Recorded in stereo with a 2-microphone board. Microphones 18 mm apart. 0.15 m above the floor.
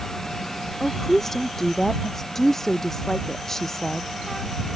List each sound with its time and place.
0.8 s a woman speaking: 20° left (ahead or behind)